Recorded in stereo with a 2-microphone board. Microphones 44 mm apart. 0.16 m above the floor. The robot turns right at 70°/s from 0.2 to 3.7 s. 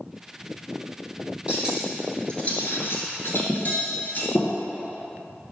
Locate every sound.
1.5 s cutlery clinking: 25° right (ahead or behind), 1.5 m; by 4.5 s 45° left (ahead or behind), 1.5 m